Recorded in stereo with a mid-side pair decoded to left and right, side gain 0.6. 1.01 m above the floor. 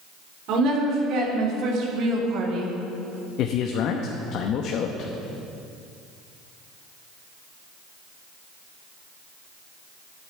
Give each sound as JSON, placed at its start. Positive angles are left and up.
{"t": 0.5, "sound": "a woman speaking", "azimuth_deg": -65, "distance_m": 3.5}
{"t": 3.4, "sound": "a man speaking", "azimuth_deg": 60, "distance_m": 0.9}